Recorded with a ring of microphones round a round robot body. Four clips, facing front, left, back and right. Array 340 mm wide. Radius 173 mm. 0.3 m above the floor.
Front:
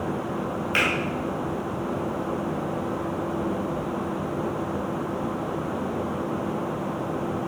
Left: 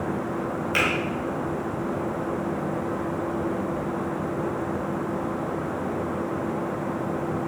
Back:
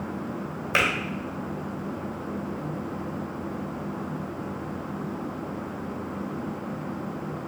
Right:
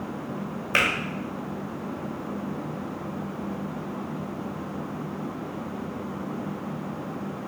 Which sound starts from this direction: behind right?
A finger snap, at 0.7 s.